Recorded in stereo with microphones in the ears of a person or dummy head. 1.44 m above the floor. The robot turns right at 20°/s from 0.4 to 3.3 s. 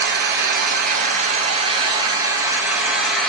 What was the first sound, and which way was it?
An engine running, 55° right.